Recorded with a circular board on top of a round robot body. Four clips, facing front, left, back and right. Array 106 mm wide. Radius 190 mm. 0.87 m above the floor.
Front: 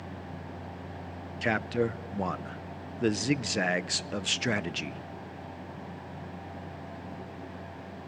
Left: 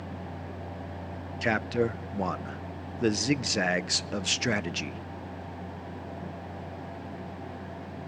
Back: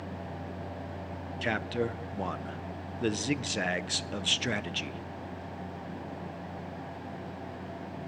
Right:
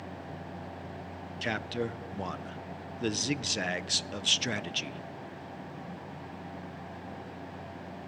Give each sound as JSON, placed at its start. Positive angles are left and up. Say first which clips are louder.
{"t": 1.4, "sound": "a man speaking", "louder": "left 7 dB, front 3 dB", "azimuth_deg": 65, "distance_m": 0.9}